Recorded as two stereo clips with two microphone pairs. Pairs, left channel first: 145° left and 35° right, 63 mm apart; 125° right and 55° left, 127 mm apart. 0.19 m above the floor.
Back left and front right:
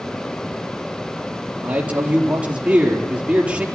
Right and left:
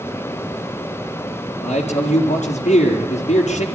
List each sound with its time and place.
1.6 s a man speaking: 105° right, 4 m